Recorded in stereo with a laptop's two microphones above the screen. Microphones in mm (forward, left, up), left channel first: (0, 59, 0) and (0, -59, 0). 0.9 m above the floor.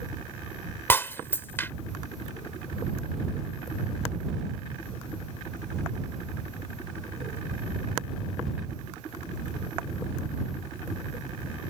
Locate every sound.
0.9 s breaking glass: 20° left (ahead or behind)